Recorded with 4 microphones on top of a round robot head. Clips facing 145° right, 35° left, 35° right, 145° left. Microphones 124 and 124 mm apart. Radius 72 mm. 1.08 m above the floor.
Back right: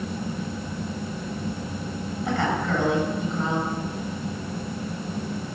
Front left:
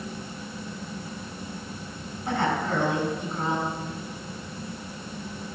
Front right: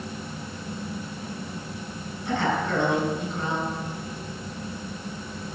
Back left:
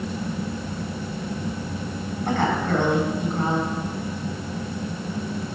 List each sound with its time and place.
2.2 s a woman speaking: 170° right, 5 m